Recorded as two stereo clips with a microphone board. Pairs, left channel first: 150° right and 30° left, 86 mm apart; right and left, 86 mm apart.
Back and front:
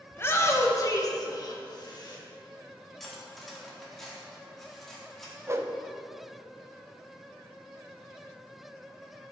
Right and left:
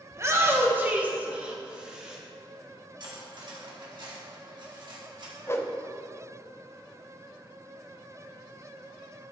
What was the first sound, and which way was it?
A shout, 145° left.